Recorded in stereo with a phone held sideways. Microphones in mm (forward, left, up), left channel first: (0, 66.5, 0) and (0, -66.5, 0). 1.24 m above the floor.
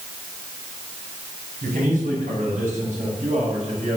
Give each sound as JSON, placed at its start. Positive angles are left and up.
{"t": 1.6, "sound": "a man speaking", "side_deg": -85, "distance_m": 6.5}